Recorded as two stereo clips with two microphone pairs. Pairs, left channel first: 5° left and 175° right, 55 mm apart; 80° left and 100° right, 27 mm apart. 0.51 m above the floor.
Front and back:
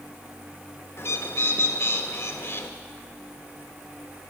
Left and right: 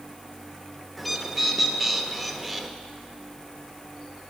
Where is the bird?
5° right, 1.1 m.